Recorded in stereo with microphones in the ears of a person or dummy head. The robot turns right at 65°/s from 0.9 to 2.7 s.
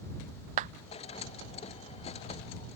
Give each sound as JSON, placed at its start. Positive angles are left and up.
{"t": 0.6, "sound": "a clap", "side_deg": -45}